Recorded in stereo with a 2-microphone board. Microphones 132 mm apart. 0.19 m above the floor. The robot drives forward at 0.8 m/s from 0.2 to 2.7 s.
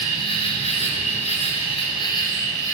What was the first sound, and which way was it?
An insect, 45° left (ahead or behind).